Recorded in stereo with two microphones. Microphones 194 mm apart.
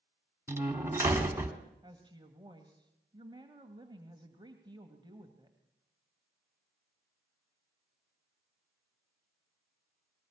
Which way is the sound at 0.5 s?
15° right (ahead or behind).